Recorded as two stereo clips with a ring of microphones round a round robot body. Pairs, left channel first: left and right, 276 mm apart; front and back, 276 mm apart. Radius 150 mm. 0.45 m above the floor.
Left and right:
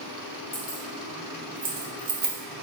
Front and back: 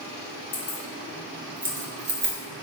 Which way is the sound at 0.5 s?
35° left.